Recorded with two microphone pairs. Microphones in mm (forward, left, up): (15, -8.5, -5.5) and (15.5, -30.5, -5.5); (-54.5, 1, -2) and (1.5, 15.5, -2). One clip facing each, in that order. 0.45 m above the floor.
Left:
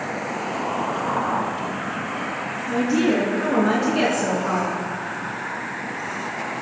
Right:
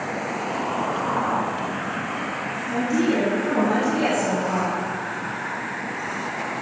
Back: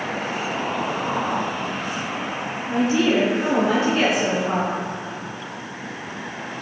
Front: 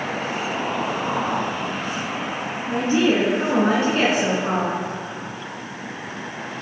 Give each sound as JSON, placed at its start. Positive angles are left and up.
{"t": 2.7, "sound": "a woman speaking", "azimuth_deg": 70, "distance_m": 4.5}